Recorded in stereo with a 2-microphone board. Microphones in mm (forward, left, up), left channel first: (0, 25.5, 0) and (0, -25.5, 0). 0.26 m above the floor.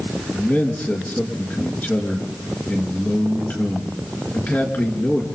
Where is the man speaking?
35° left (ahead or behind), 4.5 m.